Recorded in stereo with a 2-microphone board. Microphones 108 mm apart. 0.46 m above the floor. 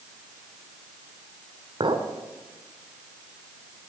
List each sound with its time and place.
1.8 s a clink: 50° right (ahead or behind), 1.2 m